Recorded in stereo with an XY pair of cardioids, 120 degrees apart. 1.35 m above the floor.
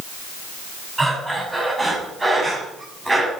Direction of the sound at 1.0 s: 15° right.